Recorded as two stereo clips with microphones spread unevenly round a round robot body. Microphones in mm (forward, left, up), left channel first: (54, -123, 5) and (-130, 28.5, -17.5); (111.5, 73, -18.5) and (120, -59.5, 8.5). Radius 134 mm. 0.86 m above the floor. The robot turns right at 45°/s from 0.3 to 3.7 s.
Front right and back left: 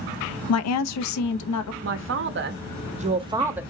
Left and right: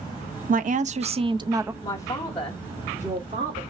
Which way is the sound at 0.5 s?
65° right.